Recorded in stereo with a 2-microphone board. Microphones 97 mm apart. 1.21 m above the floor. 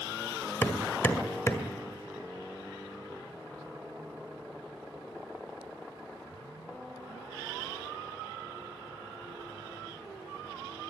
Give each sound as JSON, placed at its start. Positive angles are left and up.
{"t": 0.6, "sound": "hammering", "side_deg": 25, "distance_m": 1.9}